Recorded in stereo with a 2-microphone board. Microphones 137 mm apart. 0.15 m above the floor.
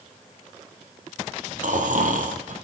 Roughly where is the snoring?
Right.